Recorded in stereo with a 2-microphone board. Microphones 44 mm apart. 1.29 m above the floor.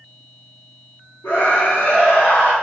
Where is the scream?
75° left (ahead or behind), 3.5 m; by 2.5 s 80° left, 3.5 m.